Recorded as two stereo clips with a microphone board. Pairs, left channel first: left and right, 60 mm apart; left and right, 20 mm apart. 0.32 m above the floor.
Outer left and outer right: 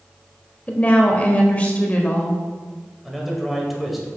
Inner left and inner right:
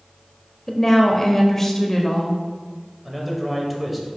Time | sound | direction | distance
0.7 | a woman speaking | 25° left (ahead or behind) | 0.9 m
3.0 | a man speaking | centre (ahead or behind) | 1.3 m